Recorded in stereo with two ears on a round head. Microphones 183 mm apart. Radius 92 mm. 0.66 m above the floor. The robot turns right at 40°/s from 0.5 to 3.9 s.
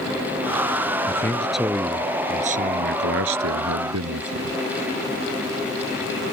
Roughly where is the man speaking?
Behind.